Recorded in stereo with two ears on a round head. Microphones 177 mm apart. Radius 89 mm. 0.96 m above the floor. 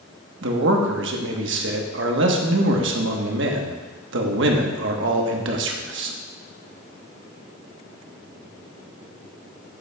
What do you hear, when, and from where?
0.4 s a man speaking: 65° right (ahead or behind), 1.2 m